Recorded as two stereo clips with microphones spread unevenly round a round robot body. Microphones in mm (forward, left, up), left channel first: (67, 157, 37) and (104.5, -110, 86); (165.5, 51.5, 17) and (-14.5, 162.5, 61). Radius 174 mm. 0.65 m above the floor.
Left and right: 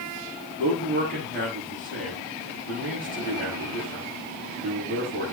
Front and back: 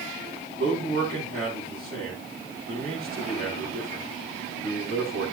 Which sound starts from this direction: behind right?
A man speaking, at 0.6 s.